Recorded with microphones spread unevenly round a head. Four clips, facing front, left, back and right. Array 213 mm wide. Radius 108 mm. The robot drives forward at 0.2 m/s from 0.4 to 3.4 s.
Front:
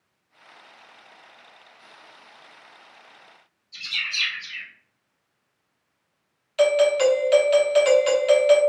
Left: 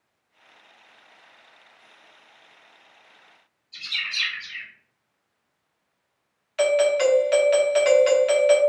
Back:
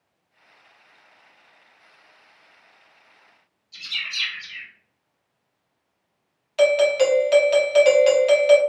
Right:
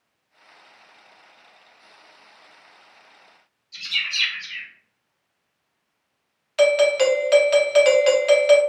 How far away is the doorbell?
About 0.6 m.